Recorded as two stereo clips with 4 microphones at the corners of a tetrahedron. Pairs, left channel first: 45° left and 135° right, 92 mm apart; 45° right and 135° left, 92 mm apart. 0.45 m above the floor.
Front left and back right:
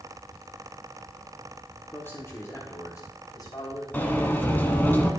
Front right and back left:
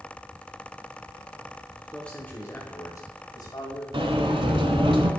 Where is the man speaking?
25° left, 1.0 m; by 3.8 s 10° right, 2.5 m.